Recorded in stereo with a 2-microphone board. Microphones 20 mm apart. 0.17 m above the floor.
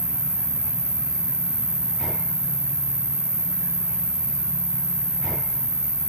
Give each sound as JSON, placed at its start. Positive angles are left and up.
{"t": 0.0, "sound": "an insect", "side_deg": -35, "distance_m": 0.8}